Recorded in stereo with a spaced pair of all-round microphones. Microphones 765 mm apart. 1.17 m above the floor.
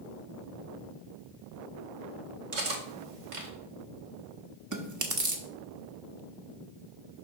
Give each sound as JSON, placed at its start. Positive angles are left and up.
{"t": 2.5, "sound": "cutlery clinking", "side_deg": -70, "distance_m": 1.3}
{"t": 4.7, "sound": "chewing", "side_deg": -25, "distance_m": 0.9}